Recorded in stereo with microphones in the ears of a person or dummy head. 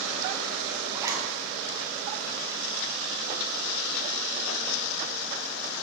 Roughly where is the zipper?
Centre.